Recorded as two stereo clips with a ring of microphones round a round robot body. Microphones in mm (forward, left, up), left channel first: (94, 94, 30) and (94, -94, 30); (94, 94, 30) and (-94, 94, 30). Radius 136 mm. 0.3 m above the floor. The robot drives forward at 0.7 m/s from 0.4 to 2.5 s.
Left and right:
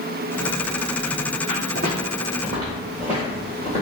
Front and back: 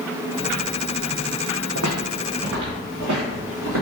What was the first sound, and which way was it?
Footsteps, 140° right.